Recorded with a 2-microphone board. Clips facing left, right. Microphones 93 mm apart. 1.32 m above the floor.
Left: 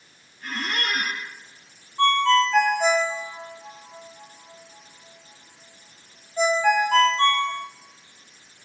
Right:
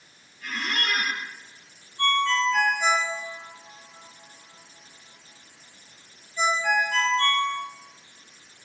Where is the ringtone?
60° left (ahead or behind), 6.5 m.